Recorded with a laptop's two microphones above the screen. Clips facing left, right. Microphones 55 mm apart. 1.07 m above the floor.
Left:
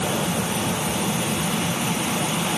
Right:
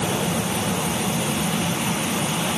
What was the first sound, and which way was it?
Only background noise.